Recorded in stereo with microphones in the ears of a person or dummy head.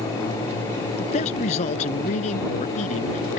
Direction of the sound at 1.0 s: 35° left (ahead or behind).